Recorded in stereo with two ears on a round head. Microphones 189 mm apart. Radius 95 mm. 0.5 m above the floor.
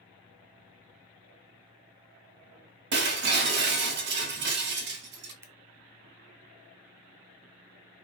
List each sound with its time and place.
2.9 s breaking glass: 55° right (ahead or behind), 1.3 m
5.4 s scissors: 15° right (ahead or behind), 0.7 m